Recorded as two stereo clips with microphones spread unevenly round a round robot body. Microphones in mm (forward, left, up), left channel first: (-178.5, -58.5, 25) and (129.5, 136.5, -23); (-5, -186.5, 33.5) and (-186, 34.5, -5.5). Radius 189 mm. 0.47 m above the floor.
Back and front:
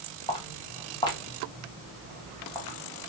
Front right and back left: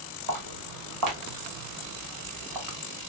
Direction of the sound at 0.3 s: 135° left.